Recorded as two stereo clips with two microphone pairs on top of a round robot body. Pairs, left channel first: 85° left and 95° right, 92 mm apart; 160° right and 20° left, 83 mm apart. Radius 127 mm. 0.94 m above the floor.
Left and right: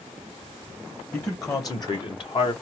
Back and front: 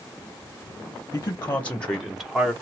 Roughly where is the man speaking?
Behind left.